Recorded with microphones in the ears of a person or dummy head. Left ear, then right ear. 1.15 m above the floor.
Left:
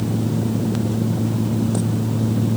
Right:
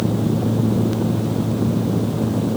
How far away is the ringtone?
No ringtone in this recording.